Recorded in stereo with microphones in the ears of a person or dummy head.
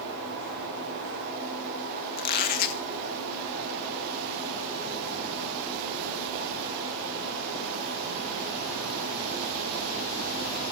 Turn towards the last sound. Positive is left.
turn(degrees=45)  # may be behind; listen again after turning